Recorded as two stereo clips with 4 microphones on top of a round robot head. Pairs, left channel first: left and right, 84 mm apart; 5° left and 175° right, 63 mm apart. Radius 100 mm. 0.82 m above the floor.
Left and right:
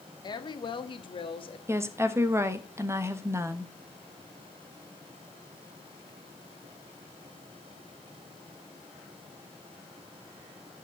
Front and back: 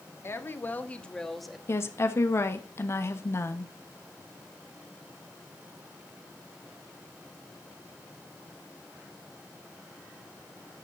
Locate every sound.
0.2 s a woman speaking: 55° left, 1.6 m; by 1.6 s 100° left, 1.3 m
1.7 s a woman speaking: 35° right, 1.3 m